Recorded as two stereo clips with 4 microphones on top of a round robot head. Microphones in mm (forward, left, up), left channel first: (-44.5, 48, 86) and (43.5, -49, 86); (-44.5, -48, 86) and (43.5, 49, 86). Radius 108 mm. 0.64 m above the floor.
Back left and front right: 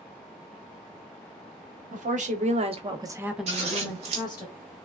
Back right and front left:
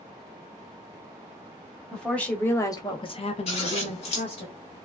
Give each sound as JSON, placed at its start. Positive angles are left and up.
{"t": 1.9, "sound": "a woman speaking", "azimuth_deg": -45, "distance_m": 1.2}
{"t": 3.5, "sound": "scissors", "azimuth_deg": -90, "distance_m": 0.6}